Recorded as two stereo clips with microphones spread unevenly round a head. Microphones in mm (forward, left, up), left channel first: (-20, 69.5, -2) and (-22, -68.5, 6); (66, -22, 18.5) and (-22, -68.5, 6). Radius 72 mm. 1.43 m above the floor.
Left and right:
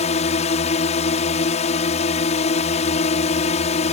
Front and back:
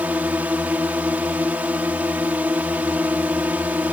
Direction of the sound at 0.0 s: 130° left.